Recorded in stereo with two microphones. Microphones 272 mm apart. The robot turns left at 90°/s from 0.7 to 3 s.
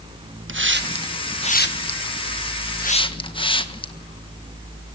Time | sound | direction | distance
0.5 | a hiss | 45° right (ahead or behind) | 1.5 m